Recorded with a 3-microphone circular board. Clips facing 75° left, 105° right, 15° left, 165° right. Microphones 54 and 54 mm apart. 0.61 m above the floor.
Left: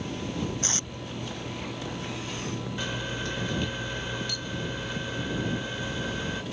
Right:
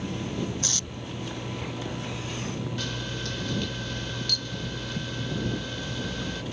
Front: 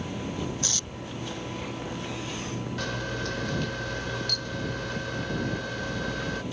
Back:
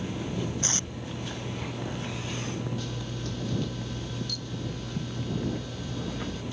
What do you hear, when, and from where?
0.6 s tape being pulled: 135° left
2.8 s a camera shutter: 5° left